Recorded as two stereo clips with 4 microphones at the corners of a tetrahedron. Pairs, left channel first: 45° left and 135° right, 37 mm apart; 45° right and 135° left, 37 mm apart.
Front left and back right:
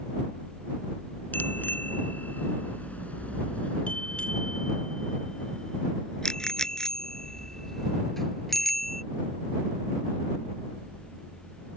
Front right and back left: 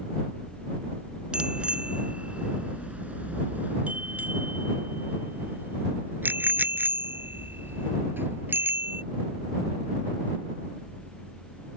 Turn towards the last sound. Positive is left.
turn(degrees=130)